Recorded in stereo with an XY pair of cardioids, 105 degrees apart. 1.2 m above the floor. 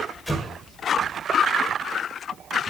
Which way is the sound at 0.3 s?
5° left.